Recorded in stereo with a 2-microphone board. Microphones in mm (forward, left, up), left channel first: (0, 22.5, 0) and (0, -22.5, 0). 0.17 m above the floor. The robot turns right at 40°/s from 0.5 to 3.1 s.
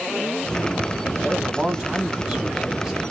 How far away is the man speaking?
About 1.1 m.